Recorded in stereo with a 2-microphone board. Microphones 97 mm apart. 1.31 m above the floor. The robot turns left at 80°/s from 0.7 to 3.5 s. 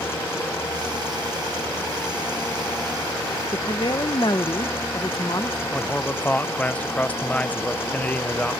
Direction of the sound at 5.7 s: 15° left (ahead or behind).